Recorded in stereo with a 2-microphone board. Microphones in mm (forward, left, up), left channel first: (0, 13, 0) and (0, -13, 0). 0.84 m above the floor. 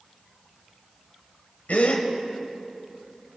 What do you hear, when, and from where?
1.7 s a gasp: 80° left, 1.7 m